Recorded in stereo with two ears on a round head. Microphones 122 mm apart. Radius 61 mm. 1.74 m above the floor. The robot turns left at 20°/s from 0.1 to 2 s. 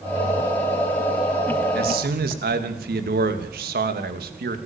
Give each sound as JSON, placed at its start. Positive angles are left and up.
{"t": 1.8, "sound": "a man speaking", "side_deg": -85, "distance_m": 3.0}